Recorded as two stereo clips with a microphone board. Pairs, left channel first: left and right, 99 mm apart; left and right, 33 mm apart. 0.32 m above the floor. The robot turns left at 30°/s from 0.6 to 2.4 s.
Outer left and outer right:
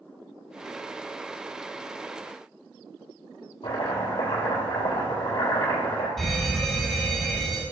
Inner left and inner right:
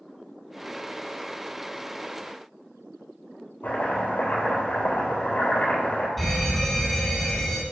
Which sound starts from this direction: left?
Chopping, at 3.6 s.